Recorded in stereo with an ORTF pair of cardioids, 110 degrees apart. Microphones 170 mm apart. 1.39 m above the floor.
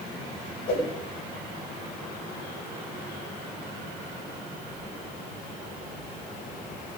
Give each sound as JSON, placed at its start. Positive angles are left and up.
{"t": 0.7, "sound": "a whoosh", "azimuth_deg": 55, "distance_m": 7.0}